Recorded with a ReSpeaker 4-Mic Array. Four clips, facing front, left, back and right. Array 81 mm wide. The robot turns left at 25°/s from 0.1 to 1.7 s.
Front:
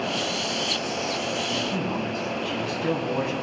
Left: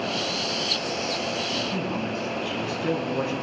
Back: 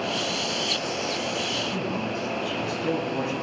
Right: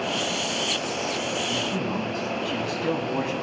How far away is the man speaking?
About 3 m.